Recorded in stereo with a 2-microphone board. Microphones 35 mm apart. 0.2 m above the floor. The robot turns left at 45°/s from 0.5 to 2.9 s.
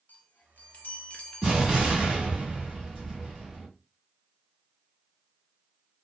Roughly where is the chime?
Left.